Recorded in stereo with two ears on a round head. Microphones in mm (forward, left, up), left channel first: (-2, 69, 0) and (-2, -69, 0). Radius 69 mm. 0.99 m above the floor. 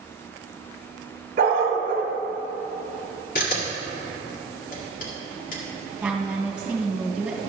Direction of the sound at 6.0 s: 10° right (ahead or behind).